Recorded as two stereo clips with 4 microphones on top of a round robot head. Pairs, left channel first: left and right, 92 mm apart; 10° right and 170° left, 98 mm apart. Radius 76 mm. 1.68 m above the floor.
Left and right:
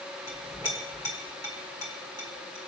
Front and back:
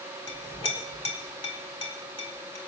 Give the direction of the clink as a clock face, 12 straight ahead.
11 o'clock.